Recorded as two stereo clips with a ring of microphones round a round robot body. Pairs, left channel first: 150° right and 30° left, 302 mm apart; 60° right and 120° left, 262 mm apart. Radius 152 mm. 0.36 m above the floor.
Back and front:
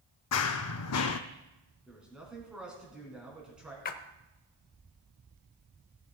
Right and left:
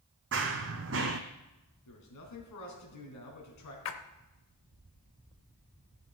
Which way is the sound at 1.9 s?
55° right.